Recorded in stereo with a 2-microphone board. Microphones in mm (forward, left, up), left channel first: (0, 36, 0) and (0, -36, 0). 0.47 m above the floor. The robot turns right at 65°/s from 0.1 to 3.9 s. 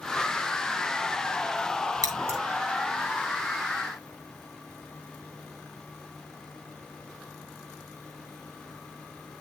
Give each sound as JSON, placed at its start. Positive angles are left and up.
{"t": 2.0, "sound": "scissors", "side_deg": -55, "distance_m": 2.5}